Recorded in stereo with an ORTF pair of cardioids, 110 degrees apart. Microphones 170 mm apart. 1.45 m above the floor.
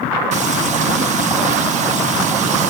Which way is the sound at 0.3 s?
45° right.